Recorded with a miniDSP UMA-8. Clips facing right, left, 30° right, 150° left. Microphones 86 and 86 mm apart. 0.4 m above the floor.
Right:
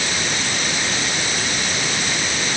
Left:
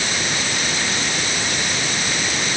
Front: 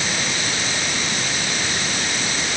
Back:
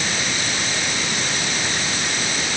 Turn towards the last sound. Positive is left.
No sound to turn to.